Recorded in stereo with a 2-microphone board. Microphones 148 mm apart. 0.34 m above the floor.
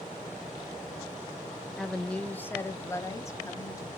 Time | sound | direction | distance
1.8 | a woman speaking | centre (ahead or behind) | 0.9 m